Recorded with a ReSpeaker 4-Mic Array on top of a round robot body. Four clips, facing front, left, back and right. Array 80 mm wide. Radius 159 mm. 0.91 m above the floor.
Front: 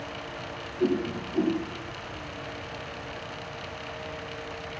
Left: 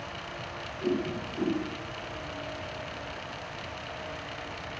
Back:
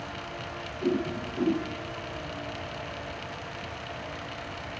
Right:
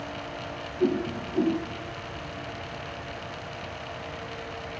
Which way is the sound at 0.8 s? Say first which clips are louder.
Right 4 dB, front 2 dB; 45° right.